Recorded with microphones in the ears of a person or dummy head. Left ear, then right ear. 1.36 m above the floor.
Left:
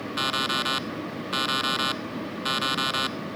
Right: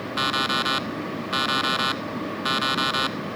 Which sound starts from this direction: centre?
An alarm clock, at 0.2 s.